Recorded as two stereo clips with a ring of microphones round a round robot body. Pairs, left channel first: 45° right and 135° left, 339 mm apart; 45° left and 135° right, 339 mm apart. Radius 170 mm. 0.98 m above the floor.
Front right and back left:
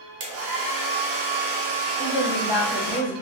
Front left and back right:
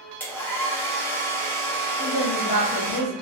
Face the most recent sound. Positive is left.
turn(degrees=40)